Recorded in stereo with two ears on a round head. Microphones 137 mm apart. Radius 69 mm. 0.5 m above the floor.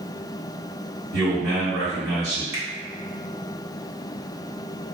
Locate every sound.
1.1 s a man speaking: 25° right (ahead or behind), 1.4 m
2.5 s a finger snap: 15° right (ahead or behind), 1.0 m